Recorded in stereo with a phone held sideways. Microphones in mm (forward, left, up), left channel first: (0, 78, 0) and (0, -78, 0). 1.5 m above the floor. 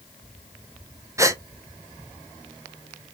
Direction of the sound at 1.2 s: 20° right (ahead or behind).